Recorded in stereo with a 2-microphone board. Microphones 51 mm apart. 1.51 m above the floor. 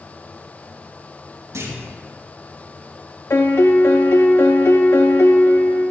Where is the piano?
65° left (ahead or behind), 0.9 m.